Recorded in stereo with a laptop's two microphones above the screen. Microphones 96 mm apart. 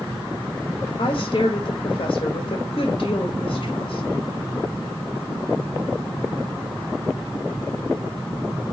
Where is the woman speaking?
60° left (ahead or behind), 1.1 m.